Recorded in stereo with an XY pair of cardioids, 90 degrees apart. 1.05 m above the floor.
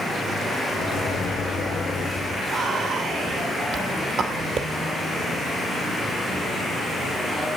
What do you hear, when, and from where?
0.7 s a microwave: 65° left, 2 m
2.5 s whispering: 70° right, 2.5 m